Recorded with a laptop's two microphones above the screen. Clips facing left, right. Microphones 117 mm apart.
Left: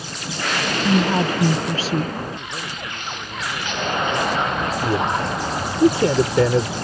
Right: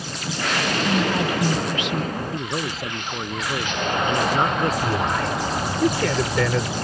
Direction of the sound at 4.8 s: 25° left (ahead or behind).